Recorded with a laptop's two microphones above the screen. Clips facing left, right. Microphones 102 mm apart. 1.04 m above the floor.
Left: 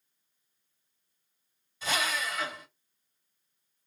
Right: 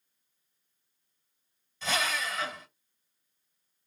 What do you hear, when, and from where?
1.8 s a drill: 10° left (ahead or behind), 2.5 m